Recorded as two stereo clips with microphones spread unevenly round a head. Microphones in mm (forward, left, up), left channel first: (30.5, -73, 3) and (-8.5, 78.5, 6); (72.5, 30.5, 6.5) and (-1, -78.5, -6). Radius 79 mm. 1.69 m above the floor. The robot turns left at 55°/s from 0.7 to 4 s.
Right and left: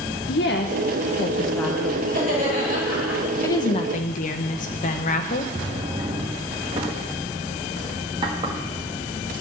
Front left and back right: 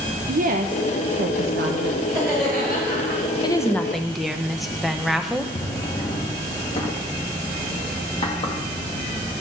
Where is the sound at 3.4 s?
Straight ahead, 0.9 m; by 5.5 s 35° right, 0.9 m.